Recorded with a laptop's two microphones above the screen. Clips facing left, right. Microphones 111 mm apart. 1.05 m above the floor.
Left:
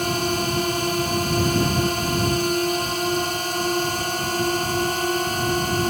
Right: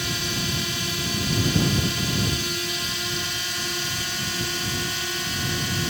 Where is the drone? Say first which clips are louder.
Left 8 dB; 45° left (ahead or behind).